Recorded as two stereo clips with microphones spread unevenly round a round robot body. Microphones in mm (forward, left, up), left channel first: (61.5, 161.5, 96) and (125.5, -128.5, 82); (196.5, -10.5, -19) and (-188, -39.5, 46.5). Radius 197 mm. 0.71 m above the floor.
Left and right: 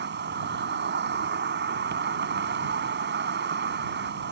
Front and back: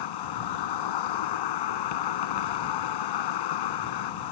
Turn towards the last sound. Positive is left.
turn(degrees=-25)